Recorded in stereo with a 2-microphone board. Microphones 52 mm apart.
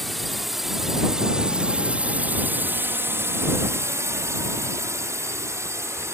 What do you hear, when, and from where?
0.0 s a drone: centre (ahead or behind); by 6.2 s 55° right (ahead or behind)